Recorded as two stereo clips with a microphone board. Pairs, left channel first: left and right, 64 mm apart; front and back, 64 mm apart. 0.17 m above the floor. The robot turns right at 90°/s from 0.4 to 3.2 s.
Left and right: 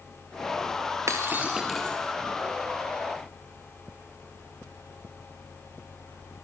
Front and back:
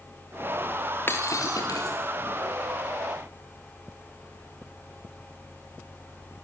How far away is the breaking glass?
About 4 m.